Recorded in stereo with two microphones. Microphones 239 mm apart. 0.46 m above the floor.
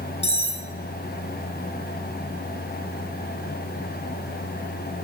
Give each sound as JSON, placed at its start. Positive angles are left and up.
{"t": 0.2, "sound": "cutlery clinking", "side_deg": 25, "distance_m": 1.7}